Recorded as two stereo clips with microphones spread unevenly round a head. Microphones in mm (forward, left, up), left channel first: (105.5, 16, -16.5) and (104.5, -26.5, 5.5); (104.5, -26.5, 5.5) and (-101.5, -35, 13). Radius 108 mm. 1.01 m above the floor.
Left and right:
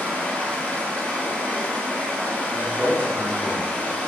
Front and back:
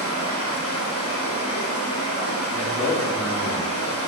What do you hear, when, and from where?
0.0 s running water: 15° left, 3 m
2.5 s a man speaking: 70° right, 2.5 m